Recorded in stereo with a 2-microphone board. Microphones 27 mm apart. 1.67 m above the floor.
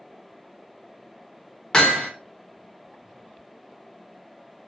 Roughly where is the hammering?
Left.